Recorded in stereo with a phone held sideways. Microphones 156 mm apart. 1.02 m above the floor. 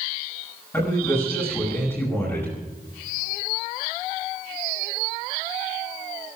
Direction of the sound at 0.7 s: 15° left (ahead or behind).